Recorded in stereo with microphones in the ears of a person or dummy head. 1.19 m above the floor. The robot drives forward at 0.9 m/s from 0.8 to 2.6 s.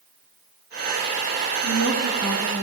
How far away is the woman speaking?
About 10 m.